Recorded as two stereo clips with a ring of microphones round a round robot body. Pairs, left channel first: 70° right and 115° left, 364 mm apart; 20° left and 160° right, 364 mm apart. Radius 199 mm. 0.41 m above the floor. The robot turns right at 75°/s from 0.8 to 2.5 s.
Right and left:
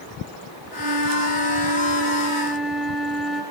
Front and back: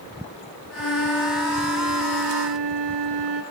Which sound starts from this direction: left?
A flute, at 0.8 s.